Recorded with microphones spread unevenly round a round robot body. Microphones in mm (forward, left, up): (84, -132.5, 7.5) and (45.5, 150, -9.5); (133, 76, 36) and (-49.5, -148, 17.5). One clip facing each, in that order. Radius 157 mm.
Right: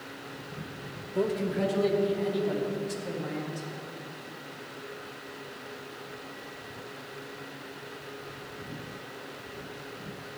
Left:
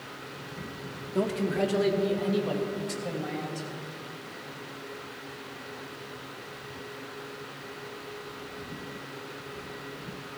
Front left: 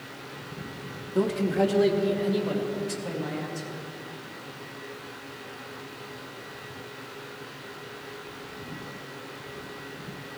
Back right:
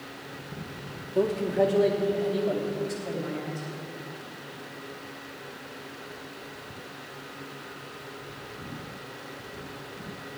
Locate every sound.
1.1 s a man speaking: 110° left, 1.2 m; by 3.7 s 95° left, 4 m